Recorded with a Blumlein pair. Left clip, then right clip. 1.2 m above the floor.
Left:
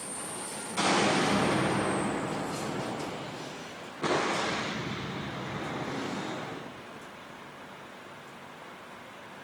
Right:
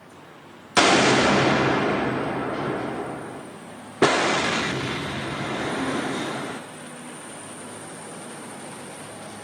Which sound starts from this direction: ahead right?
An explosion, at 0.8 s.